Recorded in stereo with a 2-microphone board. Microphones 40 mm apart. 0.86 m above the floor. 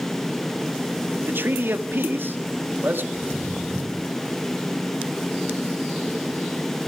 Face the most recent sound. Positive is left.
turn(degrees=15)  # may be behind; listen again after turning